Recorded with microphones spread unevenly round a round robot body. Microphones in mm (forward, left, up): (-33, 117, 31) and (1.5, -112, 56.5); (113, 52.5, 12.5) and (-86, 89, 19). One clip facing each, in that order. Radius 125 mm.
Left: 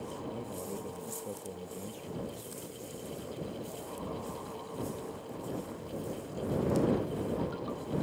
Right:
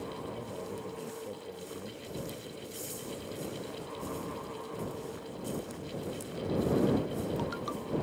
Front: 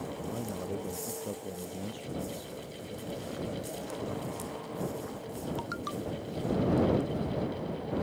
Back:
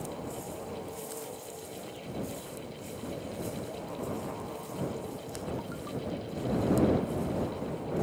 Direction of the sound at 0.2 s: 25° left.